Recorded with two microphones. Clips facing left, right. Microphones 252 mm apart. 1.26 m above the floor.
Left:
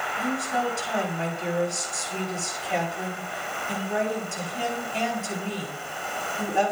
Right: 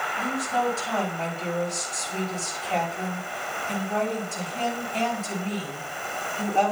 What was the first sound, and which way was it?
A woman speaking, 15° left (ahead or behind).